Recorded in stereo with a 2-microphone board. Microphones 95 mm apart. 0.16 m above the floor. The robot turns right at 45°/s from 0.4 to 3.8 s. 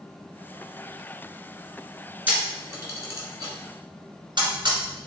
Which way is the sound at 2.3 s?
15° right (ahead or behind).